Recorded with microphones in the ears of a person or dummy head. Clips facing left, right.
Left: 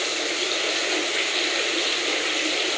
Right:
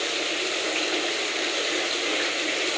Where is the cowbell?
No cowbell in this recording.